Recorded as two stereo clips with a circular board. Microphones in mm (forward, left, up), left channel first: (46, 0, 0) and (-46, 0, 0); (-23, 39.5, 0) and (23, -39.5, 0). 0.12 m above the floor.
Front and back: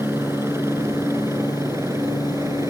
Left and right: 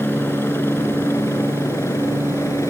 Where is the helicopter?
155° left; by 2.7 s 150° left.